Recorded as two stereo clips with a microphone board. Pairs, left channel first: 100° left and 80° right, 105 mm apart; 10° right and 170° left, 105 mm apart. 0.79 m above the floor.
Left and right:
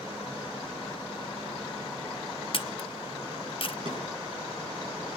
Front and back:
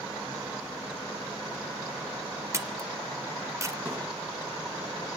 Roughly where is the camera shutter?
Behind left.